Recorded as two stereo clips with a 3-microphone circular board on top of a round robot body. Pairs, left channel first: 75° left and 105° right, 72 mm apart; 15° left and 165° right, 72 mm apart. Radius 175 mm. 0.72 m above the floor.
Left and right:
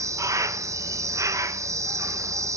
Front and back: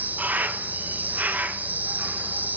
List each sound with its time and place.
0.0 s an insect: 110° right, 1.3 m